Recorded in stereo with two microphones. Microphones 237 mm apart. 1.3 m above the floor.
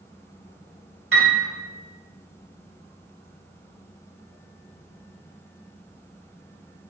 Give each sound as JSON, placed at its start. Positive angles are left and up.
{"t": 1.1, "sound": "a piano", "side_deg": -60, "distance_m": 2.5}